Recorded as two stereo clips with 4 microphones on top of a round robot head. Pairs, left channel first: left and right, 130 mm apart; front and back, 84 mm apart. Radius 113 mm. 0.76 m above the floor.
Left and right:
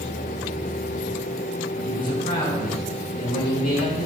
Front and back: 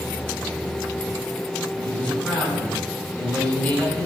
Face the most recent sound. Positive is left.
turn(degrees=75)